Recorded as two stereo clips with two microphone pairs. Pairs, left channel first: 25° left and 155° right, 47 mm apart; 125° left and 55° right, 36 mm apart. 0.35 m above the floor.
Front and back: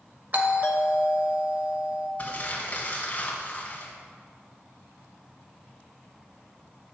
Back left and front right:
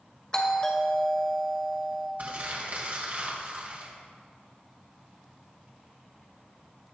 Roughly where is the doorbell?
Behind.